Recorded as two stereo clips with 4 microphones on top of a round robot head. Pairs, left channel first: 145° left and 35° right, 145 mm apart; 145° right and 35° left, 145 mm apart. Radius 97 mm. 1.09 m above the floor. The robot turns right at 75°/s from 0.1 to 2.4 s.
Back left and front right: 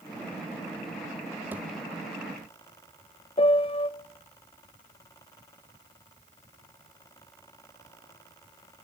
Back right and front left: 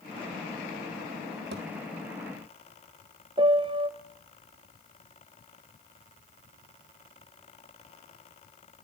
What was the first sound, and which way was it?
A thud, 40° left.